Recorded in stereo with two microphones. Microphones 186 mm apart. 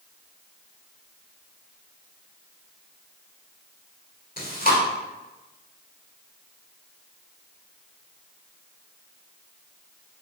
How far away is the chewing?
About 2.0 m.